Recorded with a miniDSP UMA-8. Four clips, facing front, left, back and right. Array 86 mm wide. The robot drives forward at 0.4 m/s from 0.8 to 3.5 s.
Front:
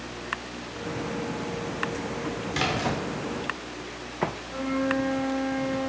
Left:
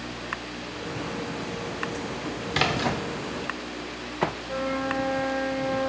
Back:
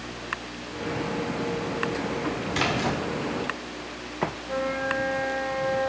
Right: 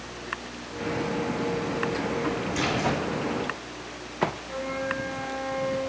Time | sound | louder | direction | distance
2.5 | a splash | left 4 dB, even | 95° left | 1.3 m
4.5 | a flute | left 3 dB, front 1 dB | 145° left | 2.5 m